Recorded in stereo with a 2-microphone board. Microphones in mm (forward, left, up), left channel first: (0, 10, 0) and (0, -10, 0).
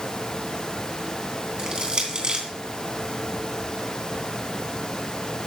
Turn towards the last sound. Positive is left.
turn(degrees=-40)  # may be behind; listen again after turning